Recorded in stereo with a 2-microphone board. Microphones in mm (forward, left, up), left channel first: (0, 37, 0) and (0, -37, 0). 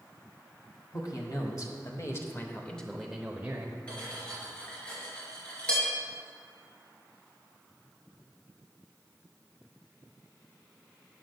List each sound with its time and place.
0.9 s a man speaking: 55° left (ahead or behind), 1.7 m; by 3.8 s 25° right (ahead or behind), 1.2 m
3.9 s cutlery clinking: 15° left (ahead or behind), 4 m